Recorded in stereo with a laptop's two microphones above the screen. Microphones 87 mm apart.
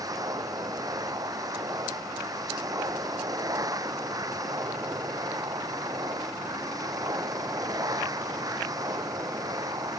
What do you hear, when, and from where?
0.0 s a machine running: 45° right (ahead or behind)